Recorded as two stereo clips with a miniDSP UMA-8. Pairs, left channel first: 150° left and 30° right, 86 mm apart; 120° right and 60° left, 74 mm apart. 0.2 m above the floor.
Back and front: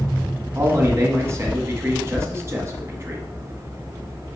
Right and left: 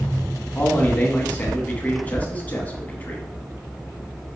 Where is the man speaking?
65° right, 1.8 m.